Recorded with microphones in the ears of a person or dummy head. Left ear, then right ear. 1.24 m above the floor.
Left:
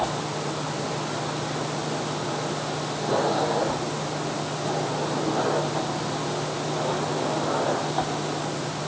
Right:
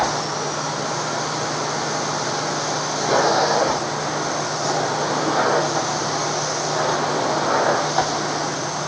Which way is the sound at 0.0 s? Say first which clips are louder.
Right 6 dB; 55° right (ahead or behind).